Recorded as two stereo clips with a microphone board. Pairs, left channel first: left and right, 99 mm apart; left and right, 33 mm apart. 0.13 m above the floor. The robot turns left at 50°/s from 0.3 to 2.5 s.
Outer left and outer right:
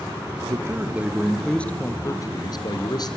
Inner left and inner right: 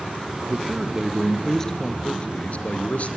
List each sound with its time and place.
0.5 s a man speaking: 135° right, 2 m; by 3.2 s 120° left, 2 m